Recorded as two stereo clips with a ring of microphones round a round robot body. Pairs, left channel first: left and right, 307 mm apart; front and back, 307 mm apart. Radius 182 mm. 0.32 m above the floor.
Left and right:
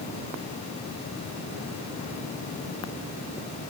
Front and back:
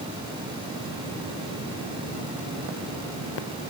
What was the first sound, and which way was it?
Only background noise.